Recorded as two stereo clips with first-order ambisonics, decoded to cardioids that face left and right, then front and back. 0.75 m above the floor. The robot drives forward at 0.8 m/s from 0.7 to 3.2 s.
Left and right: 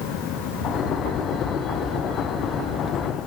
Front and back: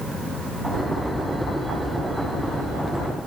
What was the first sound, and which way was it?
Only background noise.